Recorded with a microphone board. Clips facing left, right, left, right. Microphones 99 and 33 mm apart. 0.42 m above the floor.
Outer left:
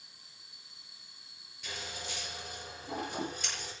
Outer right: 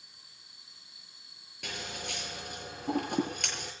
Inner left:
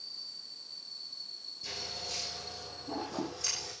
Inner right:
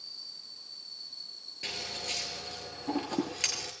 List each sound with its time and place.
1.6 s scissors: 65° right (ahead or behind), 7 m